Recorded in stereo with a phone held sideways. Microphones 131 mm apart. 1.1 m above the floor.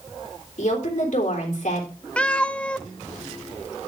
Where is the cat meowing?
10° left (ahead or behind), 0.6 m.